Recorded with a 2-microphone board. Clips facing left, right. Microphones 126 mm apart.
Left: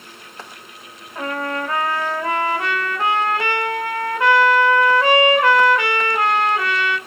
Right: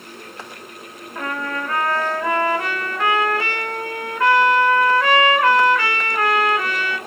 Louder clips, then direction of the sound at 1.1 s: Left 2 dB; 25° left (ahead or behind).